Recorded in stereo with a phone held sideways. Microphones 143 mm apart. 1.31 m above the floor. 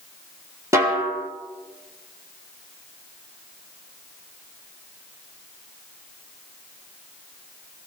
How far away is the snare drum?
About 2.5 m.